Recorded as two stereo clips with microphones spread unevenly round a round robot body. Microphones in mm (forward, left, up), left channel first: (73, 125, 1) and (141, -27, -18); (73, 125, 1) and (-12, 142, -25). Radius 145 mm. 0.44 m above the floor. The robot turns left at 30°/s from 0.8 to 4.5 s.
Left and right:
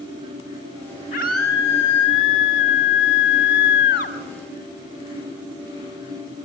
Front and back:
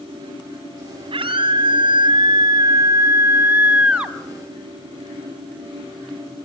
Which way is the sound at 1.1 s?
Straight behind.